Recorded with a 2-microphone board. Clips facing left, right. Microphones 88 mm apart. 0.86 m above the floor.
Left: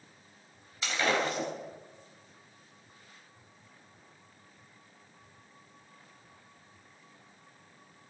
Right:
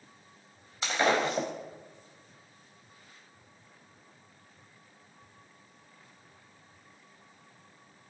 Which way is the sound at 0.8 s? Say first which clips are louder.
Right 3 dB; 30° right (ahead or behind).